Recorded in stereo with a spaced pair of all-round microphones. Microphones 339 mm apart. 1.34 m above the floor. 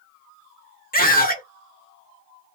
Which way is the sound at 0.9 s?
25° left (ahead or behind).